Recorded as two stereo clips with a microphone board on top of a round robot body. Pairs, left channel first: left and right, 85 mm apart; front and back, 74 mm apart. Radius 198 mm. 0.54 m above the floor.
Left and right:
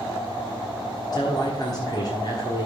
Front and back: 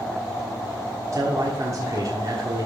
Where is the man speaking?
130° left, 1.6 m.